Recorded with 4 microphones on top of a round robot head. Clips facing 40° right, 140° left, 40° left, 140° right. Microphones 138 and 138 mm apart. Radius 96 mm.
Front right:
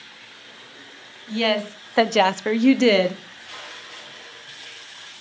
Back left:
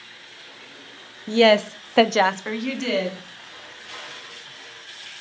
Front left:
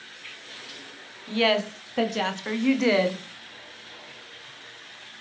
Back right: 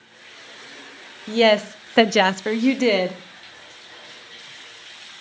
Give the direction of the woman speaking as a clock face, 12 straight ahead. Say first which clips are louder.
Back left 7 dB, back right 7 dB; 6 o'clock.